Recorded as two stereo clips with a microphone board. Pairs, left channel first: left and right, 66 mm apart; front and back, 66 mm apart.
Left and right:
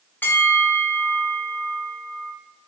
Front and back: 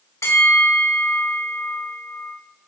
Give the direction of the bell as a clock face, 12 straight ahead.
11 o'clock.